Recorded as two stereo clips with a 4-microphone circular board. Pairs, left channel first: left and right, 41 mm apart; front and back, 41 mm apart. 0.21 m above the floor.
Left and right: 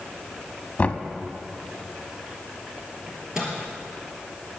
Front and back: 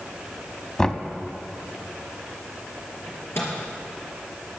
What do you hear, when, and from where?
0.8 s knocking: 60° left, 0.9 m
3.1 s a microwave: 15° right, 3.5 m